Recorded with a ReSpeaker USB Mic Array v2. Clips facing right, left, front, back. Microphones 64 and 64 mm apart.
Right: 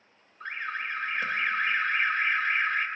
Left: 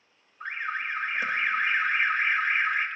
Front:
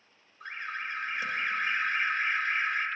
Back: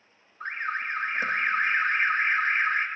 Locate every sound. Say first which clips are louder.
0.4 s an alarm: left 2 dB, back 6 dB; 165° left, 0.8 m